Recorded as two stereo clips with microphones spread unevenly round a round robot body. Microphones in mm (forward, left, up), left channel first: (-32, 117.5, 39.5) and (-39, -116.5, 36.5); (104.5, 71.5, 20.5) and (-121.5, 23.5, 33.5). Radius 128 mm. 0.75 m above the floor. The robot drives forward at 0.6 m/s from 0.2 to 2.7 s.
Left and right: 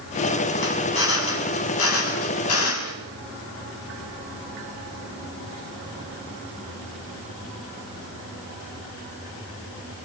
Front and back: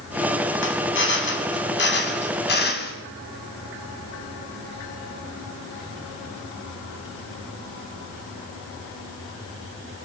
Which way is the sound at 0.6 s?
50° left.